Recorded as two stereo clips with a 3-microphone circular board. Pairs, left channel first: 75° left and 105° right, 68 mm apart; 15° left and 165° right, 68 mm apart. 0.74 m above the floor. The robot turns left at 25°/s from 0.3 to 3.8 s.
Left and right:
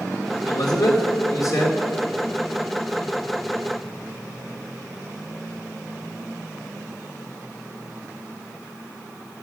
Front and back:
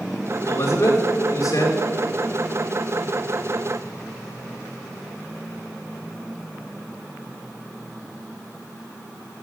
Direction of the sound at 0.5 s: 70° left.